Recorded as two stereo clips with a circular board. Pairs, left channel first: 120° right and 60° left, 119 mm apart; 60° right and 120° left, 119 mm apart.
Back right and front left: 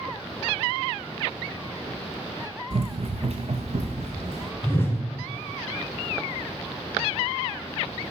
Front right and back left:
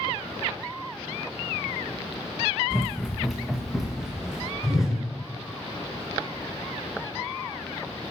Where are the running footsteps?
25° left, 0.6 m; by 4.5 s 35° left, 1.6 m.